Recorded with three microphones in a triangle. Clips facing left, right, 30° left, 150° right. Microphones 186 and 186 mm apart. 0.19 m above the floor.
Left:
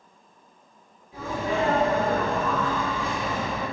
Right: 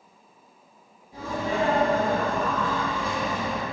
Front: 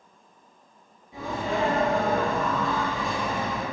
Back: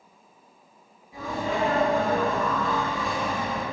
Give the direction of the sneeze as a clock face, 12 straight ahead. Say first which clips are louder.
Even, even; 2 o'clock.